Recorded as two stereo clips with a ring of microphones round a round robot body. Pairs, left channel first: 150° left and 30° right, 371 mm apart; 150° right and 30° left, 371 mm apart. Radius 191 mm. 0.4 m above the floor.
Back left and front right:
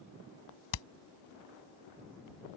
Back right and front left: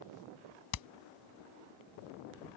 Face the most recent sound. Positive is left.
turn(degrees=170)